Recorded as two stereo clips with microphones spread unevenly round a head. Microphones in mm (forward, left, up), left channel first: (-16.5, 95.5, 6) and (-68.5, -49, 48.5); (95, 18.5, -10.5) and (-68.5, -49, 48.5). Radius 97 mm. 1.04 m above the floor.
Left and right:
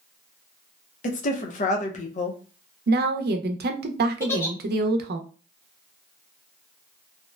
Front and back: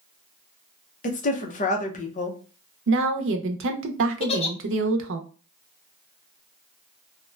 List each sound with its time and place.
1.0 s a woman speaking: 50° left, 0.6 m
2.9 s a woman speaking: 135° right, 0.6 m
4.2 s a giggle: 15° left, 0.6 m